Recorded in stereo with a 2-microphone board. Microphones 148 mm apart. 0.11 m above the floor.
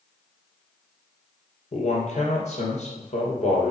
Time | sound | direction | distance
1.7 | a man speaking | 50° left (ahead or behind) | 2.5 m